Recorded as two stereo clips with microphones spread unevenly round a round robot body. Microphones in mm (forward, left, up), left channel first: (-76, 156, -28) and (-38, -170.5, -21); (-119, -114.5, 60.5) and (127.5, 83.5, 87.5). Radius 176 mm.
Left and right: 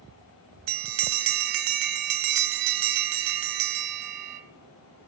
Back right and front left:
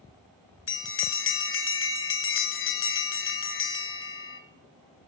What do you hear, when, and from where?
0.7 s a bell: 95° right, 1.0 m